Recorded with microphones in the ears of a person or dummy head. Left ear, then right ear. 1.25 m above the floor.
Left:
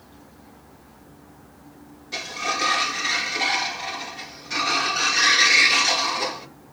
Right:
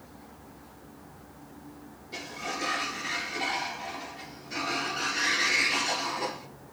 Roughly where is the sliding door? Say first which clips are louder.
Left 9 dB; left.